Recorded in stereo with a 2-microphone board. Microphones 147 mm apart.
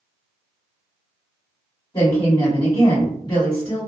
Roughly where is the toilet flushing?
I don't hear a toilet flushing.